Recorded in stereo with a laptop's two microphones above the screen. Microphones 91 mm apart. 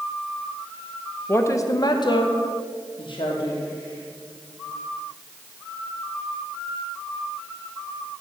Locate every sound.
1.3 s a woman speaking: 25° left (ahead or behind), 0.6 m; by 3.6 s 60° left (ahead or behind), 1.3 m